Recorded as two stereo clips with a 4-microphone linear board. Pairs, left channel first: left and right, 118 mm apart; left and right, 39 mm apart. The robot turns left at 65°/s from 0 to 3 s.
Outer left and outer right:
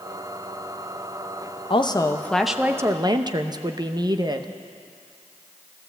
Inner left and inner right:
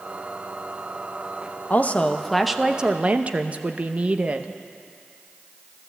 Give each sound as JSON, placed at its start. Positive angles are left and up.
{"t": 1.7, "sound": "a woman speaking", "azimuth_deg": 50, "distance_m": 0.8}